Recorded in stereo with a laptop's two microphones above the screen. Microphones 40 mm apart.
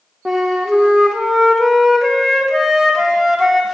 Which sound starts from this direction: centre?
A flute, at 0.2 s.